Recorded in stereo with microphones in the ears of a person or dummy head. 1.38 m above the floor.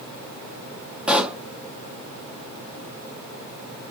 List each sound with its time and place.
1.1 s a pop: centre (ahead or behind), 0.5 m